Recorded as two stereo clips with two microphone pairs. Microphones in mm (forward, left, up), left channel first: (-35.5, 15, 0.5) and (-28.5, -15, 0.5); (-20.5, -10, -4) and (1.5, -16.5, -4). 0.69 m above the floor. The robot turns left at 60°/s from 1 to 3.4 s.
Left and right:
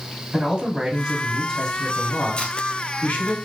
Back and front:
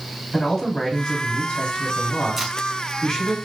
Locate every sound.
0.3 s a man speaking: 130° right, 2 m; by 3.4 s 90° left, 2 m
2.4 s tape being pulled: 55° left, 1.1 m; by 2.5 s 45° left, 1.1 m